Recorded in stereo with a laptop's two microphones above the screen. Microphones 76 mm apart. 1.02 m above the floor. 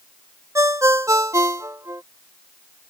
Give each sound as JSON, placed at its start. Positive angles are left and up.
{"t": 0.6, "sound": "a ringtone", "side_deg": -40}